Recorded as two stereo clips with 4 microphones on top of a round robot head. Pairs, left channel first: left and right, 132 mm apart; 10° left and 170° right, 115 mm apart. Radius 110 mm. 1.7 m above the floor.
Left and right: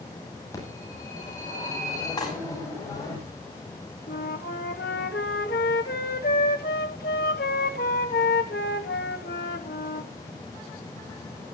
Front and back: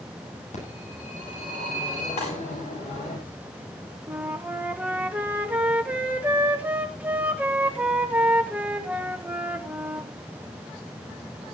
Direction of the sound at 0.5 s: 25° left.